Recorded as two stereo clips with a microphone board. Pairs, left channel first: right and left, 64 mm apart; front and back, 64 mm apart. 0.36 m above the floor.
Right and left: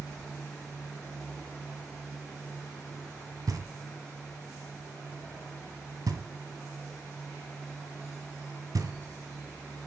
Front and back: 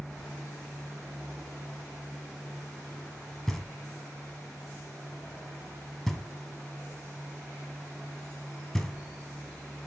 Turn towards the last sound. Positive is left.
turn(degrees=85)